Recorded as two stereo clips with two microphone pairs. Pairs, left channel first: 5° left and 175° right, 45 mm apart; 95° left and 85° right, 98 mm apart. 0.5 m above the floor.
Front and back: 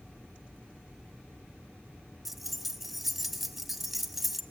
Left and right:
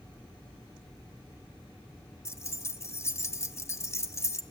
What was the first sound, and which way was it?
Keys jangling, 105° left.